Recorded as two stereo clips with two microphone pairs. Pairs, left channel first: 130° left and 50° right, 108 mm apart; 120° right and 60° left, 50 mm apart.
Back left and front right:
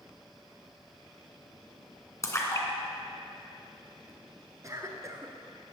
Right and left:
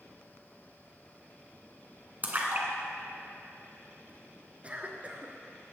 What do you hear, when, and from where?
2.2 s a splash: 85° left, 1.9 m
4.6 s a cough: straight ahead, 1.8 m